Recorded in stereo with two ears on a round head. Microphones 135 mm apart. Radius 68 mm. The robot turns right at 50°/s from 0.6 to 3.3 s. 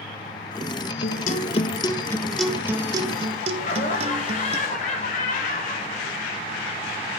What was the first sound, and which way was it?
A guitar, 110° left.